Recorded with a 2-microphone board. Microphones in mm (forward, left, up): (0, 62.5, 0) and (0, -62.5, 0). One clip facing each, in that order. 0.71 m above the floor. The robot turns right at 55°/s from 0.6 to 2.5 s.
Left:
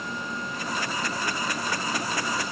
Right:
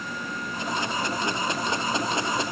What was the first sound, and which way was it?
Only background noise.